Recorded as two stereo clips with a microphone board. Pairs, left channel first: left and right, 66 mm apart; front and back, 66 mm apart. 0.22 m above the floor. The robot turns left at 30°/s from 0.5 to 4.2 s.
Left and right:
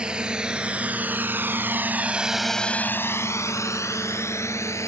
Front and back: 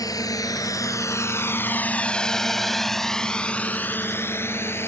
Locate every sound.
0.0 s a drone: 15° right; by 4.9 s 50° left